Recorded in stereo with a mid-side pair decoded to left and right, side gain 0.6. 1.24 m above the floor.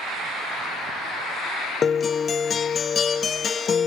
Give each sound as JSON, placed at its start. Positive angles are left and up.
{"t": 1.8, "sound": "a guitar", "azimuth_deg": 35, "distance_m": 0.5}